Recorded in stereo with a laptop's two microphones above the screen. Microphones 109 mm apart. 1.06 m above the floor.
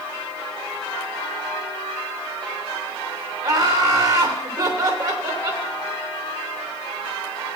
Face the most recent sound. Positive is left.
turn(degrees=-35)  # may be behind; listen again after turning